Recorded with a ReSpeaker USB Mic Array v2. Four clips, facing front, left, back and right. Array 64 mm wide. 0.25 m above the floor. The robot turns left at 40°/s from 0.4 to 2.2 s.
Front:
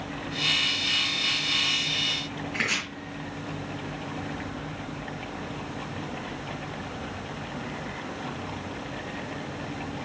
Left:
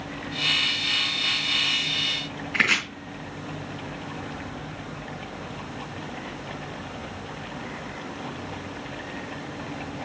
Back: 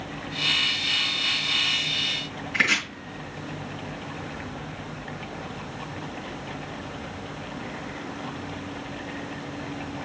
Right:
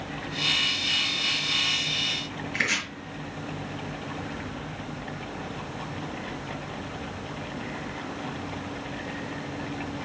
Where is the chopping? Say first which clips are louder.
Left 5 dB, back 6 dB; 110° left, 3.5 m.